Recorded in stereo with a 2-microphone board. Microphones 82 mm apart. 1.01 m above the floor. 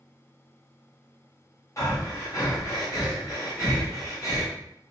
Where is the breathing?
40° left (ahead or behind), 1.7 m.